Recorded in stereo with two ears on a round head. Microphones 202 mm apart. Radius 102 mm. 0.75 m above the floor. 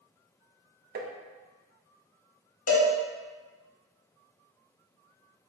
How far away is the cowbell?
About 1.3 m.